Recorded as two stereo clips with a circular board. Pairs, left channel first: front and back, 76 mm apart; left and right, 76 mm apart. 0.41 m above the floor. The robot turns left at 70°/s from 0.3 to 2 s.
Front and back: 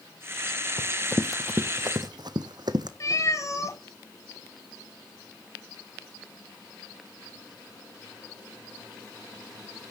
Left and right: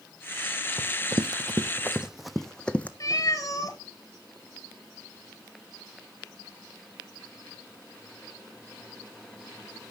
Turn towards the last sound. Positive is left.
turn(degrees=45)